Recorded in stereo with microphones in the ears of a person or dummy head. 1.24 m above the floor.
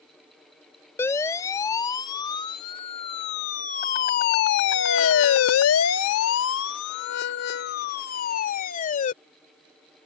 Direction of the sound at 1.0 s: 15° left (ahead or behind).